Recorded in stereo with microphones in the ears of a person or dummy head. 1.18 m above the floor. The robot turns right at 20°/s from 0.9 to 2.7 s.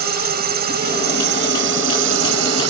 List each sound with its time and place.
0.0 s a drone: 130° right; by 2.7 s 95° right